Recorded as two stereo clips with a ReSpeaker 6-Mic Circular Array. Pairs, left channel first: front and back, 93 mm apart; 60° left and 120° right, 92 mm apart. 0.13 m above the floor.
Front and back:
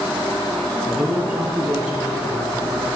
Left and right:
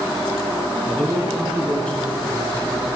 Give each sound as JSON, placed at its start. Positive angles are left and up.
{"t": 0.9, "sound": "a man speaking", "azimuth_deg": 120, "distance_m": 1.1}